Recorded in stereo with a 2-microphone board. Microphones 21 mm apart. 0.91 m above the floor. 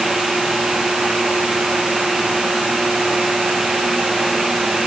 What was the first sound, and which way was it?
Only background noise.